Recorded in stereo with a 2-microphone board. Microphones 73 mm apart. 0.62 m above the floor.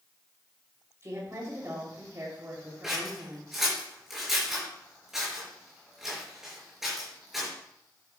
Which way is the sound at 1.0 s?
40° right (ahead or behind).